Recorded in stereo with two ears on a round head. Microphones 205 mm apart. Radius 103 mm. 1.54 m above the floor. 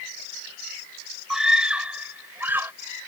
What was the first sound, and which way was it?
A scream, 5° right (ahead or behind).